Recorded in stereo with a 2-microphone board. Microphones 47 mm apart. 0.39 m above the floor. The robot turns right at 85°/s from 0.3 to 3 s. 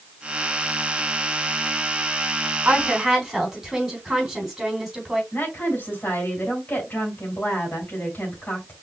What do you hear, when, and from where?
2.6 s a woman speaking: 40° right (ahead or behind), 3.5 m; by 5.2 s 10° right (ahead or behind), 3.5 m
5.3 s a woman speaking: 40° left (ahead or behind), 3.5 m